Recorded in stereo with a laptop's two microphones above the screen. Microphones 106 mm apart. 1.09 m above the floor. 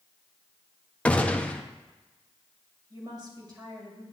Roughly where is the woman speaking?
Right.